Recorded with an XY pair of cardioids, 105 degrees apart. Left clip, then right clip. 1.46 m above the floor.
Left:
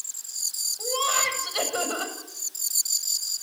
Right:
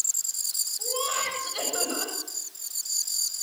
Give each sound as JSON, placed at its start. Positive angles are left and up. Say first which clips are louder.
{"t": 0.8, "sound": "laughter", "louder": "left 5 dB", "azimuth_deg": 40, "distance_m": 8.0}